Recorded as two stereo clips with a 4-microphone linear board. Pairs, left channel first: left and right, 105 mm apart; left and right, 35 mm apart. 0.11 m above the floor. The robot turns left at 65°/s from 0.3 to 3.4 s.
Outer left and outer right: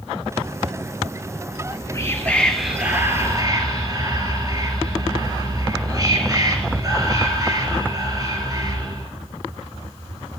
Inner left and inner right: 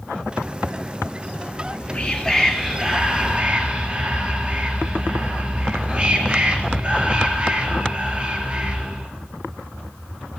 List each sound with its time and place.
1.5 s whispering: 70° left, 2.5 m; by 9.1 s 50° right, 2.5 m